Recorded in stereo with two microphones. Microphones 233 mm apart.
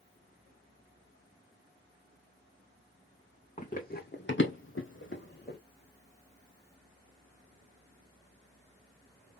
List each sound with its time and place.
3.6 s running footsteps: 30° left (ahead or behind), 1.3 m; by 5.6 s 40° left (ahead or behind), 1.3 m